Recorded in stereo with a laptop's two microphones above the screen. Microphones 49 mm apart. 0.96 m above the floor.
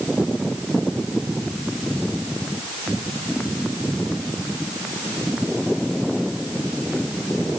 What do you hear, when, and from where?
Only background noise.